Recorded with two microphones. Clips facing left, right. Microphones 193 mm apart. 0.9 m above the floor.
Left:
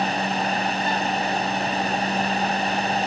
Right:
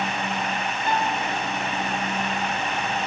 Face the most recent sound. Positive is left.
turn(degrees=-5)  # may be behind; listen again after turning